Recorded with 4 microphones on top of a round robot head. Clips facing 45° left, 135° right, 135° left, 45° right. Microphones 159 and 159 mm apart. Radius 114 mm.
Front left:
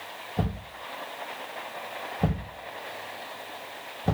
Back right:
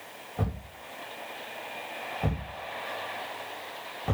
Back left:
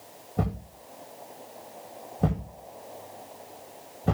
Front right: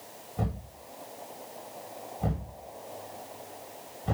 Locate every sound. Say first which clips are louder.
0.4 s a thud: front left 3 dB, back left 4 dB; 100° left, 9 m